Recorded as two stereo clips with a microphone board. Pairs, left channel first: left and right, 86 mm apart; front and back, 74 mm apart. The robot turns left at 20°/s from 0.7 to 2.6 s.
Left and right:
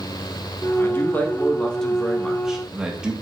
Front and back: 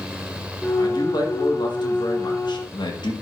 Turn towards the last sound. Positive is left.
turn(degrees=-10)